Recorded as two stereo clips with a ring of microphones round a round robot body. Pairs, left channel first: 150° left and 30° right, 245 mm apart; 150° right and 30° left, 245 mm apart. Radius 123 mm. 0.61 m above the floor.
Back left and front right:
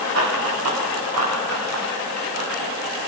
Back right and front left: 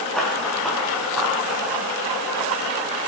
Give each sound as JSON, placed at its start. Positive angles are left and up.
{"t": 0.1, "sound": "running footsteps", "azimuth_deg": -60, "distance_m": 7.5}